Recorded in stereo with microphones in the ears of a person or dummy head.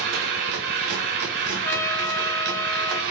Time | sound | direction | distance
0.0 | a machine running | 55° right (ahead or behind) | 1.0 m
1.6 | a trumpet | 10° left (ahead or behind) | 0.8 m